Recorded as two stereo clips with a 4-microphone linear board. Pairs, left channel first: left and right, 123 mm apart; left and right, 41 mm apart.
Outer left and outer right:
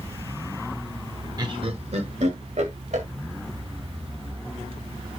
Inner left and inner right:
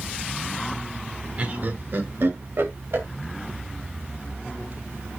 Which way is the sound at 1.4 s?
35° right (ahead or behind).